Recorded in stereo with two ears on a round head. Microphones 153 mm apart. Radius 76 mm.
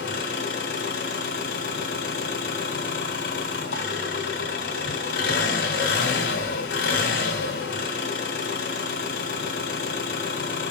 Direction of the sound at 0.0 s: 80° left.